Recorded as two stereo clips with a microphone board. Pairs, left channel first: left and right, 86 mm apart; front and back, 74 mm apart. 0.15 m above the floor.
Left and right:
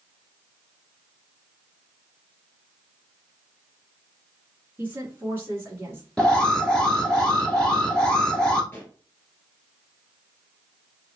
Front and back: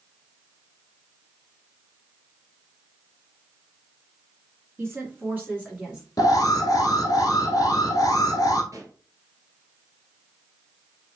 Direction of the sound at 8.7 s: 155° left.